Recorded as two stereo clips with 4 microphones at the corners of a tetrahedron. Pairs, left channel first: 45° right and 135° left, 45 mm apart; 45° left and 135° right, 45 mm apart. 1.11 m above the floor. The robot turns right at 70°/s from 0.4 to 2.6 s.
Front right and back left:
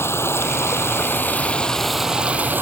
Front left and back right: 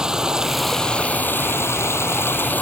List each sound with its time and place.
0.0 s running water: 60° right; by 2.6 s 95° left